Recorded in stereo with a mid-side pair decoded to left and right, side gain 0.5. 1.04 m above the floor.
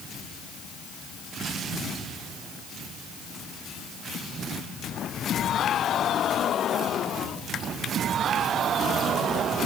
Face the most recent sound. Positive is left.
No sound to turn to.